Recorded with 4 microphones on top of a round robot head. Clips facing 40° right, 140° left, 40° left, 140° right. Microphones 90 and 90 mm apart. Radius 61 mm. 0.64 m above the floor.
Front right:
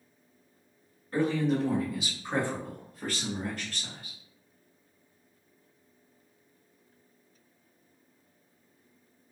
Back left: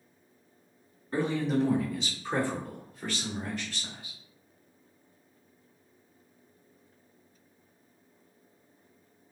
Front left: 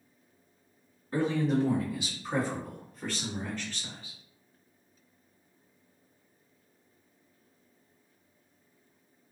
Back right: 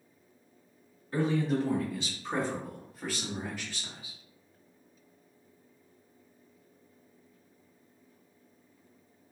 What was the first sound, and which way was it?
A man speaking, 90° left.